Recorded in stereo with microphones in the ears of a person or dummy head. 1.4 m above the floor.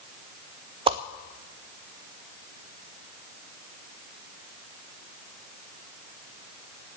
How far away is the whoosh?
About 0.6 m.